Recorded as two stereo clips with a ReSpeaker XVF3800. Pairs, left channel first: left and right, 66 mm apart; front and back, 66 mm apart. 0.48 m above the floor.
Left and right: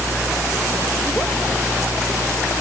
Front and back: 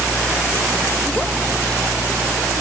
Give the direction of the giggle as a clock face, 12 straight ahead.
No giggle in this recording.